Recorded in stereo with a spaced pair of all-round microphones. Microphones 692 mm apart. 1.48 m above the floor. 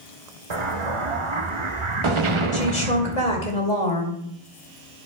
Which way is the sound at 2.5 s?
80° left.